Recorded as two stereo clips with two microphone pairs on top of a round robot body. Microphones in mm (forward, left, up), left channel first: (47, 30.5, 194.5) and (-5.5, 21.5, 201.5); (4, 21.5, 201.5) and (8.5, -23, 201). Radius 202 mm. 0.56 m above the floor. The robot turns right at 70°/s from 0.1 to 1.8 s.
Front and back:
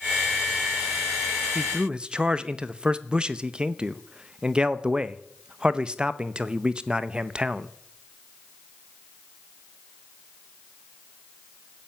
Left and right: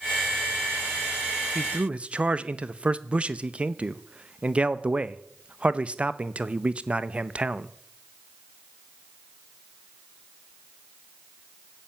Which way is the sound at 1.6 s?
120° right.